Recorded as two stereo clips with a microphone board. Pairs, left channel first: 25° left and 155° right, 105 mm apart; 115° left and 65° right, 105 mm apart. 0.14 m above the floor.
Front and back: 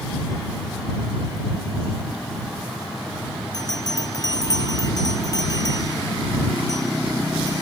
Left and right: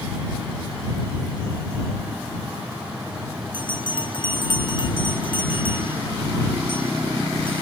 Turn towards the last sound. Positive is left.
turn(degrees=75)